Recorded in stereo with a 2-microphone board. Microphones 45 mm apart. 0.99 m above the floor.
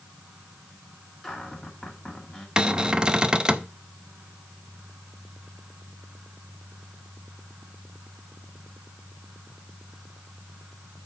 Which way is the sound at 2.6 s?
20° right (ahead or behind).